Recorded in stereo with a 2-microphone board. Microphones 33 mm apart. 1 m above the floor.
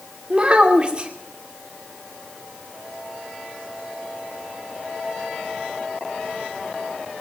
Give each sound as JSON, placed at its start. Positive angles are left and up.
{"t": 0.3, "sound": "a child speaking", "side_deg": -30, "distance_m": 2.5}